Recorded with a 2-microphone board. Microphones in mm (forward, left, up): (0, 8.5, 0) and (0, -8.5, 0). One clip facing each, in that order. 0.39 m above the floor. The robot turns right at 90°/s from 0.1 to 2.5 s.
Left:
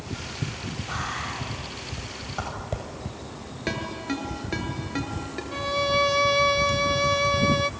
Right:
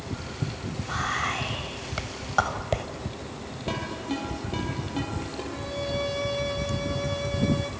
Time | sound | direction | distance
0.9 | whispering | centre (ahead or behind) | 2.5 m
3.7 | a ringtone | 75° left (ahead or behind) | 5.5 m
5.5 | a violin | 40° left (ahead or behind) | 0.5 m